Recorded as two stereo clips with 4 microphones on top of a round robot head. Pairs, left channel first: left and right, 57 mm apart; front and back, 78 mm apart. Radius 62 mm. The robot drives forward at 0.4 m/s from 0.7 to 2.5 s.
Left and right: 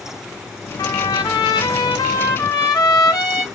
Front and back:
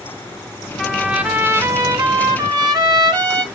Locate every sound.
0.8 s a trumpet: 90° left, 0.5 m; by 3.4 s 150° left, 0.9 m